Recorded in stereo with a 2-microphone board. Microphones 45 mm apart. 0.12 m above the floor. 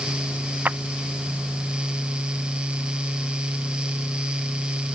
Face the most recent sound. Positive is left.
turn(degrees=-45)  # may be behind; listen again after turning